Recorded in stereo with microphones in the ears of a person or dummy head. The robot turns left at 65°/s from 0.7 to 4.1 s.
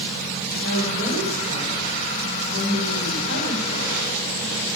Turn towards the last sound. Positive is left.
turn(degrees=25)